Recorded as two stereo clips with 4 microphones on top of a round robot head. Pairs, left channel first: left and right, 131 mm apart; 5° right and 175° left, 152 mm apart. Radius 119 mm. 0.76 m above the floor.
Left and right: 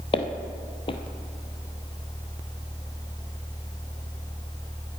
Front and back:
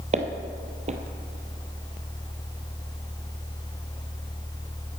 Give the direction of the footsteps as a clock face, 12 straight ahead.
7 o'clock.